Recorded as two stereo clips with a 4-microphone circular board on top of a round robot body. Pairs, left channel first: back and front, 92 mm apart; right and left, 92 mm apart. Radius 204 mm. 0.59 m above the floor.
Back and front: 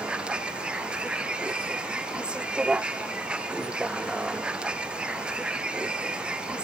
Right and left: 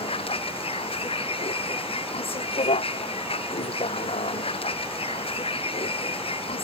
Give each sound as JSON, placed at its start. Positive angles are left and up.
{"t": 0.0, "sound": "a vehicle", "azimuth_deg": -80}